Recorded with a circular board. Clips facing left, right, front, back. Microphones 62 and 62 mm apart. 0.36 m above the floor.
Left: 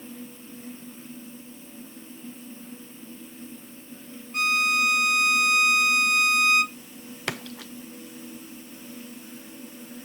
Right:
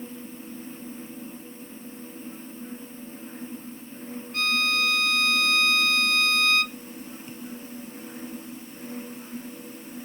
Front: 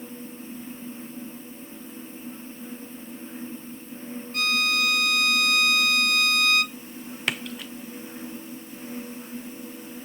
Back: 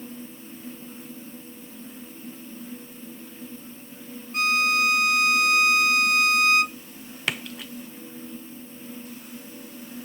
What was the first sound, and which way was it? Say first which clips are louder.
A violin: left 2 dB, back 3 dB; 145° left.